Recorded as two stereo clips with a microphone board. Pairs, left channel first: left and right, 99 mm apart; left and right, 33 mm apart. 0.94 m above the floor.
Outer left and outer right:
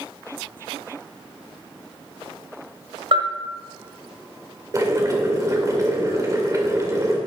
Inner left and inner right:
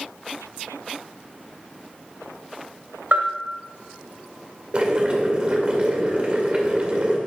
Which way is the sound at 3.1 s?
65° right (ahead or behind).